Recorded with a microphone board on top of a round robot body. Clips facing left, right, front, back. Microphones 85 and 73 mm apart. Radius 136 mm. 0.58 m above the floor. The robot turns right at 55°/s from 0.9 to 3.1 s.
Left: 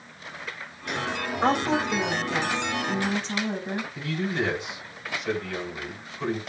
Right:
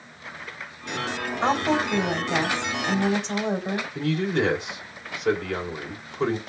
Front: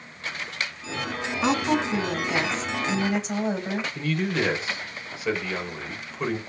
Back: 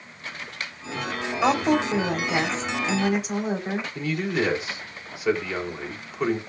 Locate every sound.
1.4 s a woman speaking: 165° left, 3 m; by 3.9 s 100° right, 3 m
4.0 s a man speaking: 105° right, 2.5 m